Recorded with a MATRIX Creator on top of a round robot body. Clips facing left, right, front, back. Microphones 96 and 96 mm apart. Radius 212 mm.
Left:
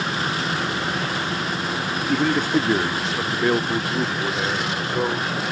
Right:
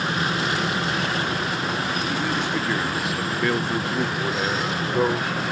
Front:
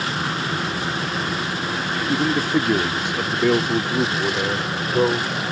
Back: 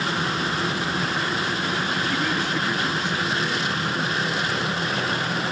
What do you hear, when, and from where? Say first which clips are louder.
2.1 s a man speaking: left 9 dB, front 5 dB; 60° left; by 5.4 s 10° right